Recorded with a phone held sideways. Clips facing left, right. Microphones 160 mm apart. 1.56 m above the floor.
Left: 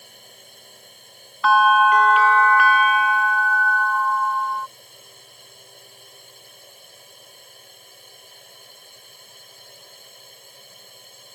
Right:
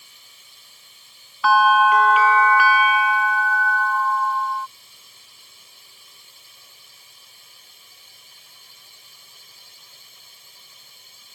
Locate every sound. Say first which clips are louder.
0.0 s a drone: left 10 dB; 55° left (ahead or behind)
1.4 s a bell: even; centre (ahead or behind)